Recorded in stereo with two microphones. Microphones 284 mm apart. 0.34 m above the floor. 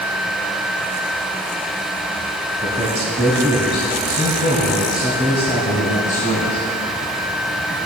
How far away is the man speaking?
About 1.6 m.